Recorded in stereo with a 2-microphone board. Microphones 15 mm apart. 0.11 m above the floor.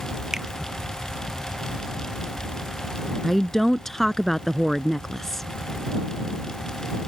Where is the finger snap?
25° right (ahead or behind).